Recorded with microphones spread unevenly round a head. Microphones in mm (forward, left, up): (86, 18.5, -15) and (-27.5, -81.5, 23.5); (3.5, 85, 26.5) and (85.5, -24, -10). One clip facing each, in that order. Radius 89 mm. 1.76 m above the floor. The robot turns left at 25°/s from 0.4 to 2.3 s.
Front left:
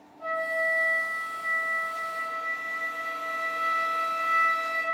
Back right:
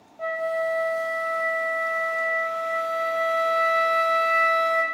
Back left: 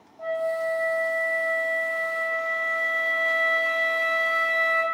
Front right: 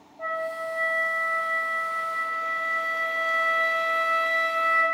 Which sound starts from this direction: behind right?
A flute, at 0.2 s.